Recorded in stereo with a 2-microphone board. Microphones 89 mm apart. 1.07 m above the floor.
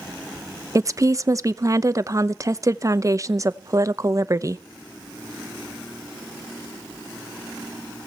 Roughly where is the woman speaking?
Right.